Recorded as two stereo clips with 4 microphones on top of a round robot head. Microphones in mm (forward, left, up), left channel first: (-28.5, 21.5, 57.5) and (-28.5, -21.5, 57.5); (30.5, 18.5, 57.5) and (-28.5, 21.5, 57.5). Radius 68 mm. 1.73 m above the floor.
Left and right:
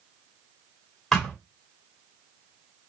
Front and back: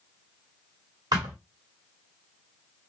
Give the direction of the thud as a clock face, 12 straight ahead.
6 o'clock.